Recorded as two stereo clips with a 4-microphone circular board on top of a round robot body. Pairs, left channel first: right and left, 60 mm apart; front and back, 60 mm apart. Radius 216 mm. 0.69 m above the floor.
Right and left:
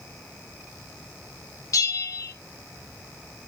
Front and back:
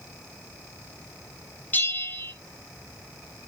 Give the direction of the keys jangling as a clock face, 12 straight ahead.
I don't hear keys jangling.